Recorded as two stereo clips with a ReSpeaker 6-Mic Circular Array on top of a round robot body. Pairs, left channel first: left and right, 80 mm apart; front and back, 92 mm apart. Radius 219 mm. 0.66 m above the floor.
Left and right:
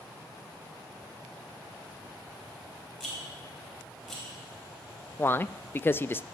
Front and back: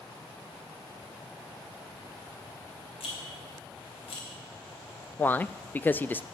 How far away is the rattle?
About 2.5 m.